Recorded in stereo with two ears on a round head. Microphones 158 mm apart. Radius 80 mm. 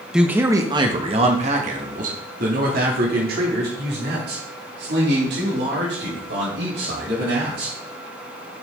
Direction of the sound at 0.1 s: 5° right (ahead or behind).